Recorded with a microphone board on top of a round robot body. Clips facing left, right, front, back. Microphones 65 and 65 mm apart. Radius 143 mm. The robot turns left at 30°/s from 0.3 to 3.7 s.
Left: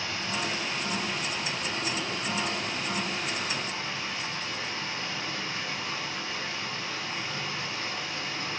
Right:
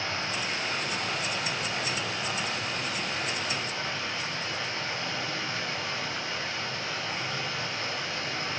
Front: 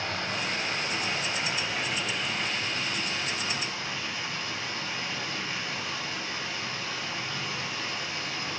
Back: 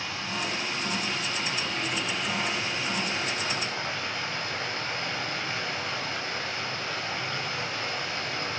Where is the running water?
35° right, 5 m; by 8.6 s 140° right, 5 m.